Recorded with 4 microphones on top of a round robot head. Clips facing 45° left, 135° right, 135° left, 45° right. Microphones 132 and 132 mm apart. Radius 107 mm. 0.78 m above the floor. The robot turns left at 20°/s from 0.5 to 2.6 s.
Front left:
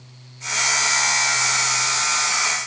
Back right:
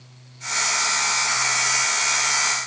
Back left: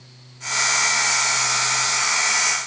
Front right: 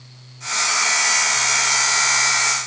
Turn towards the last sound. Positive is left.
No sound to turn to.